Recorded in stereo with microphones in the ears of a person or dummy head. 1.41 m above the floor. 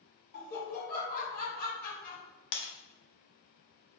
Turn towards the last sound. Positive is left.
turn(degrees=55)  # may be behind; listen again after turning